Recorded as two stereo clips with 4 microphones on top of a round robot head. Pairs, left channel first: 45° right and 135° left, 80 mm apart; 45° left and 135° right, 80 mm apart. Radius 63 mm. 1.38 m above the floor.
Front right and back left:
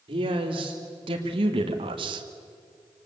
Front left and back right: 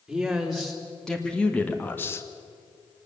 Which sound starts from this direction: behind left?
A man speaking, at 0.1 s.